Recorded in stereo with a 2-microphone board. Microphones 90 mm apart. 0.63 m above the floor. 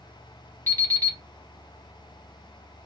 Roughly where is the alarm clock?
Left.